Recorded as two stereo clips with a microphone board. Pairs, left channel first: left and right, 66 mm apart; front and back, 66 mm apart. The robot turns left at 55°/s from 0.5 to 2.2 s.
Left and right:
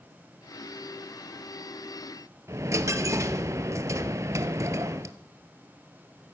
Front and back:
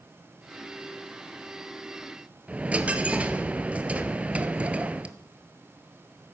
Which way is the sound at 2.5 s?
115° right.